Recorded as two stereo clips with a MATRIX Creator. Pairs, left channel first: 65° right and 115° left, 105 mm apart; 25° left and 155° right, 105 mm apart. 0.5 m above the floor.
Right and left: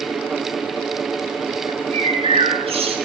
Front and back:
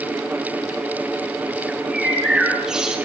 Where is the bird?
120° left, 3 m.